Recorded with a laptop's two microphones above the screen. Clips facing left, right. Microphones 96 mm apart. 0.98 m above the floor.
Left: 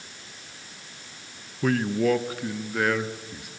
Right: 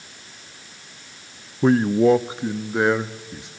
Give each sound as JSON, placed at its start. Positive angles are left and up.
{"t": 1.6, "sound": "a man speaking", "side_deg": -30, "distance_m": 0.6}